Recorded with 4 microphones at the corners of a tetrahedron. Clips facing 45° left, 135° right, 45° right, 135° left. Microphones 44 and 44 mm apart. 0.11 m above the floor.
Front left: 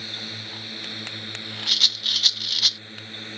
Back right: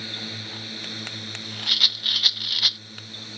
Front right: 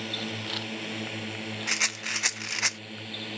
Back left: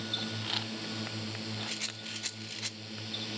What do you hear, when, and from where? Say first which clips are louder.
0.0 s a drone: back right 1 dB, front right 4 dB; 45° right; by 3.4 s 5° left
1.7 s a rattle: back right 1 dB, front right 11 dB; 55° right